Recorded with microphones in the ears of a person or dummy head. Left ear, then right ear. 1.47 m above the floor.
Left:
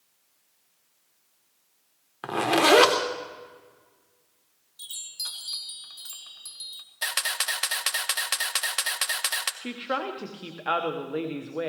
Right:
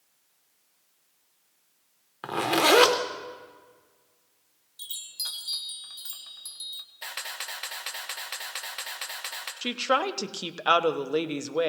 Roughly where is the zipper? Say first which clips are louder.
Left 2 dB; centre.